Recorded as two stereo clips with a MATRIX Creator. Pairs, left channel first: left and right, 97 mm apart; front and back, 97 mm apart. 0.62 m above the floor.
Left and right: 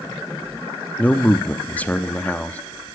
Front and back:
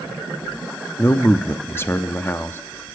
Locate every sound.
1.0 s a man speaking: 35° left, 0.7 m